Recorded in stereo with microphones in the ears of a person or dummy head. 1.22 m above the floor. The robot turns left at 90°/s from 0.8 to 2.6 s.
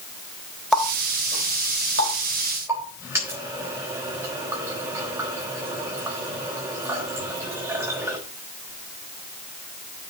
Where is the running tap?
Centre (ahead or behind), 3.5 m; by 8.2 s 20° right (ahead or behind), 3.5 m.